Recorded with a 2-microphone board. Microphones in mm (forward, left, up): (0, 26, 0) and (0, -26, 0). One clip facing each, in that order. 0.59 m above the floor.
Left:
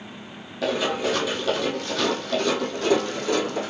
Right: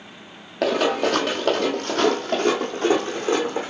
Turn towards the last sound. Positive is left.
turn(degrees=-30)  # may be behind; listen again after turning